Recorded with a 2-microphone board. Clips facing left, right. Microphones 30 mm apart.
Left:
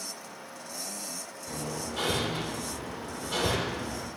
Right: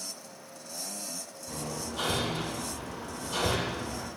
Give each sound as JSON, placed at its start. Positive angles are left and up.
{"t": 1.5, "sound": "hammering", "side_deg": 65, "distance_m": 1.9}